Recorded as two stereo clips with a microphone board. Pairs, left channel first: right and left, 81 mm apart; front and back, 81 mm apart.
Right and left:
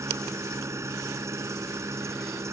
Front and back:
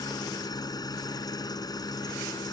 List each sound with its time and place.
0.0 s an engine running: 35° left